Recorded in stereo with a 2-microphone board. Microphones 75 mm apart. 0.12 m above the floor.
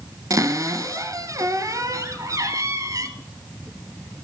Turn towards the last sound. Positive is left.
turn(degrees=-50)  # may be behind; listen again after turning